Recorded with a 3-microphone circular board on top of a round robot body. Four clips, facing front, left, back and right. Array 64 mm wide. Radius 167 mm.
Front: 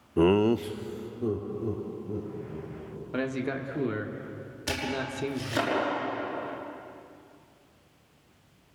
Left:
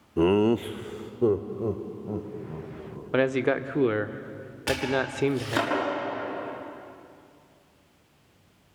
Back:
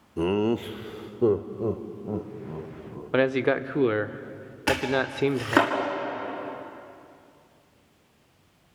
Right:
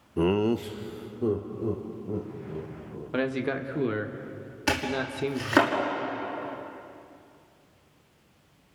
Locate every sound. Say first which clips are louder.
0.2 s laughter: left 3 dB, front 2 dB; 15° left, 1.0 m; by 3.0 s 165° left, 4 m
3.1 s a man speaking: left 5 dB, back 9 dB; 155° left, 1.4 m
4.7 s chopping: left 2 dB, back 7 dB; 150° right, 6 m